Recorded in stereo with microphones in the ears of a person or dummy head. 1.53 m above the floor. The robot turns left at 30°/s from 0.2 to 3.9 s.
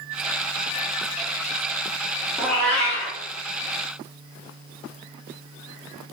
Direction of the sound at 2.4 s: 5° left (ahead or behind).